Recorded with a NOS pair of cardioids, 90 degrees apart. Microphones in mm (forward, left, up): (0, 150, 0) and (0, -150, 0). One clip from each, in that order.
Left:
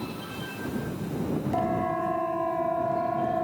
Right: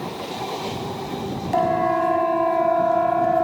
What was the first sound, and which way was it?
A siren, 55° right.